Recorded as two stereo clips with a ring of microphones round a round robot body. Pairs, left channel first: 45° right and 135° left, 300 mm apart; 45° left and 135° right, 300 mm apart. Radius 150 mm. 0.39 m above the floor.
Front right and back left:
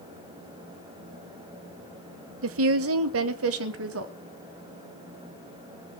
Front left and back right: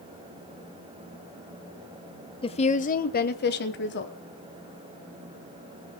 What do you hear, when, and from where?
2.4 s a woman speaking: 110° left, 1.2 m; by 4.1 s 95° left, 2 m